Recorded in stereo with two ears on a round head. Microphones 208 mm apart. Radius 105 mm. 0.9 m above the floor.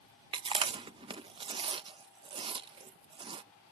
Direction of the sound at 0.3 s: 20° right (ahead or behind).